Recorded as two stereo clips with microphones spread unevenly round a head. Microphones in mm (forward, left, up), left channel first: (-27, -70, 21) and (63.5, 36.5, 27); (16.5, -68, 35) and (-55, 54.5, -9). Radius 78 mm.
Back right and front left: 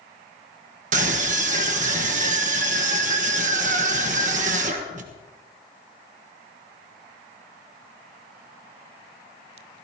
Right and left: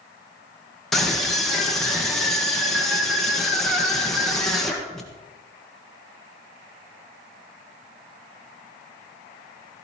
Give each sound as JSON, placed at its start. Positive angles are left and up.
{"t": 0.9, "sound": "a scream", "azimuth_deg": 20, "distance_m": 1.4}